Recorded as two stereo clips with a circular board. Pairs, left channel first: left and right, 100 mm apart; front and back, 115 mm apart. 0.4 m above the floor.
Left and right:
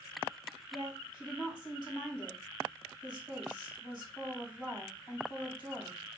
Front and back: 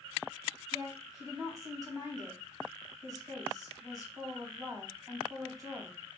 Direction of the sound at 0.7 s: 125° left.